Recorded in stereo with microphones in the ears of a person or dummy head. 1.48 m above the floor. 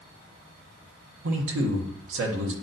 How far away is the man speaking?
About 1.2 m.